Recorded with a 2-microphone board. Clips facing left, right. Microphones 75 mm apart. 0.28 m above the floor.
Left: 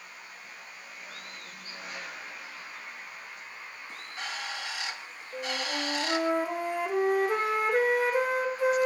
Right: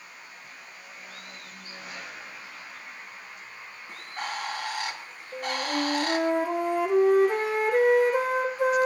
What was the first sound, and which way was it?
A bird, 55° right (ahead or behind).